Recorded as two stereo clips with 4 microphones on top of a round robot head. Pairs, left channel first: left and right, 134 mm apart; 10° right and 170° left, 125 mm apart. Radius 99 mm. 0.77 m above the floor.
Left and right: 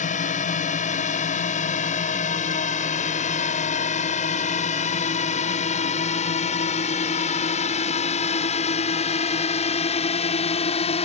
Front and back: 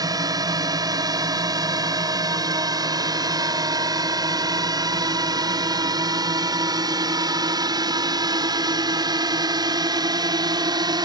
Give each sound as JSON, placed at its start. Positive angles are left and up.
{"t": 0.0, "sound": "a drone", "azimuth_deg": 115}